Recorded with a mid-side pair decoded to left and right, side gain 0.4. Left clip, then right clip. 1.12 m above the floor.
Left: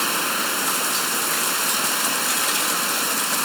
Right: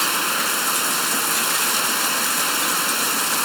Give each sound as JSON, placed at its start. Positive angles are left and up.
{"t": 0.0, "sound": "running water", "azimuth_deg": -20}